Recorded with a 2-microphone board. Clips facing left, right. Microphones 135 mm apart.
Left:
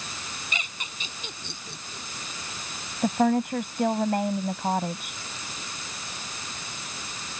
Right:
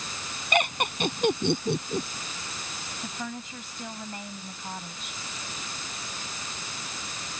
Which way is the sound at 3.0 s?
60° left (ahead or behind).